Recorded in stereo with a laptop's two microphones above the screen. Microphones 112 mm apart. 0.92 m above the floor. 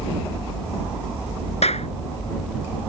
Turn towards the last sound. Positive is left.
turn(degrees=70)  # may be behind; listen again after turning